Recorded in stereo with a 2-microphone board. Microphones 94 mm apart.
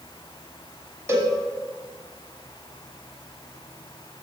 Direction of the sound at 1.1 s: 30° right (ahead or behind).